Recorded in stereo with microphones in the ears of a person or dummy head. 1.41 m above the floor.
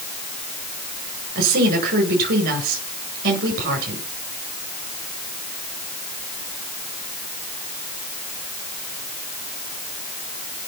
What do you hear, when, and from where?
1.4 s a woman speaking: 50° right (ahead or behind), 8.5 m